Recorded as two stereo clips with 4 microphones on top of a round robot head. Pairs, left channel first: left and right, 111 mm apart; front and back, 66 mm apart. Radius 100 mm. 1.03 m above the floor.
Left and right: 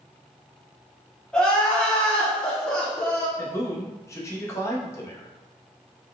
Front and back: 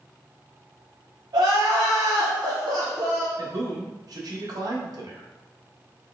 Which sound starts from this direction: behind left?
A man speaking, at 3.4 s.